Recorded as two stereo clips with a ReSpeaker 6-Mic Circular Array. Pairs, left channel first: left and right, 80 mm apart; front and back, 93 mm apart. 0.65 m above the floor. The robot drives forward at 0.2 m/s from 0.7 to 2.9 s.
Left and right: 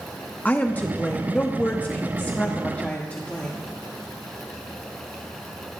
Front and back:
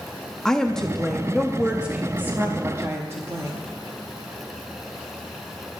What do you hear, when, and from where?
0.5 s a woman speaking: 70° left, 0.7 m; by 3.6 s 145° left, 0.8 m